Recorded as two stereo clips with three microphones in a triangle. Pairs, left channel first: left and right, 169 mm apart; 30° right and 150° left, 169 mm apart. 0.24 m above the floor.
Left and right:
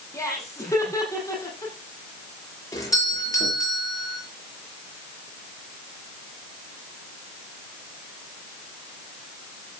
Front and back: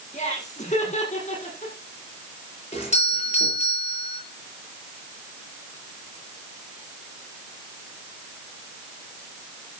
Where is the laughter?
20° left, 8.5 m.